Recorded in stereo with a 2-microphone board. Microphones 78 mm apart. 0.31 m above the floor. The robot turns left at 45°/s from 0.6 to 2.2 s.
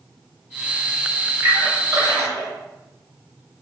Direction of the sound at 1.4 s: 45° right (ahead or behind).